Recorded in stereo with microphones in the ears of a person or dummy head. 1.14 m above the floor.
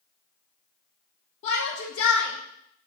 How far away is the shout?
About 0.7 m.